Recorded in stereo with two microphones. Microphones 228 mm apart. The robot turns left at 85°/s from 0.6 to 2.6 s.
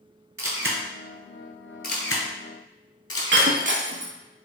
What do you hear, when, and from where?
0.4 s a camera shutter: 65° right (ahead or behind), 0.8 m; by 3.5 s 75° left (ahead or behind), 0.8 m
3.3 s breaking glass: 55° right (ahead or behind), 0.6 m